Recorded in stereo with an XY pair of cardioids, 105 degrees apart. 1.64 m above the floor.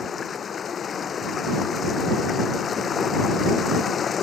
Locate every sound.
0.0 s running water: 45° left